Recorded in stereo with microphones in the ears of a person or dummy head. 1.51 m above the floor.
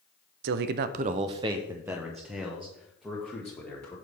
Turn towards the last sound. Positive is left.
turn(degrees=10)  # may be behind; listen again after turning